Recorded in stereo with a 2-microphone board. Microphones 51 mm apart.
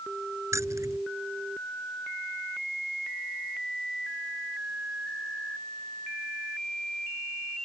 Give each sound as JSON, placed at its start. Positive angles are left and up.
{"t": 0.5, "sound": "keys jangling", "side_deg": -75}